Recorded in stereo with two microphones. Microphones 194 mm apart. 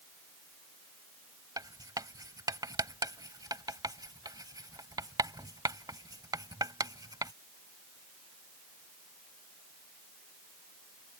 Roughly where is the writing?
Centre.